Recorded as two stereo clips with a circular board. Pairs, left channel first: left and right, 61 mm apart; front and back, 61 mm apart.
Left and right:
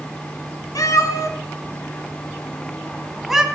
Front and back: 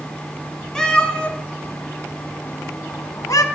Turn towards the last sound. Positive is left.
turn(degrees=-5)